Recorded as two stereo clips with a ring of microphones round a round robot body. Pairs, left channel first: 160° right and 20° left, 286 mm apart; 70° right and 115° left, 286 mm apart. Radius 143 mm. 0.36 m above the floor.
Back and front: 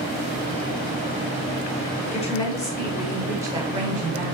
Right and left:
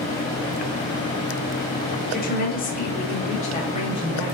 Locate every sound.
2.1 s a woman speaking: 105° right, 1.2 m; by 4.4 s straight ahead, 1.2 m